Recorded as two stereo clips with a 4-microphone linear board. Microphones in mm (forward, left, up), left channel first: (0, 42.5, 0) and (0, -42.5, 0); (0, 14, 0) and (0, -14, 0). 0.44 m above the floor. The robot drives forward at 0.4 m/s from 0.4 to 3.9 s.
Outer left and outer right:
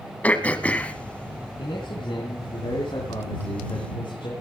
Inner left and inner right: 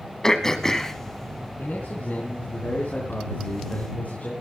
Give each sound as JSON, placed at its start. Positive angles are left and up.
{"t": 0.2, "sound": "throat clearing", "side_deg": 20, "distance_m": 1.4}
{"t": 1.6, "sound": "a man speaking", "side_deg": 75, "distance_m": 4.0}